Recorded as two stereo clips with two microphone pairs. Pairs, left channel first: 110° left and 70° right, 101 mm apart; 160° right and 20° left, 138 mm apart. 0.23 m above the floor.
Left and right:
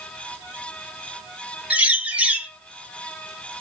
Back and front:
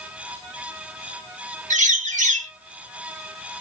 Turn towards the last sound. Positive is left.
turn(degrees=5)